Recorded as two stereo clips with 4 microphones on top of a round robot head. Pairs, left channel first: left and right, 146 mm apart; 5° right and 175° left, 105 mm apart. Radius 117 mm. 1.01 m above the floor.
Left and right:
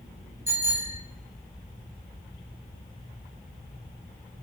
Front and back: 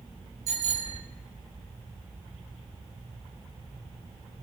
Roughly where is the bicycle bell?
Behind.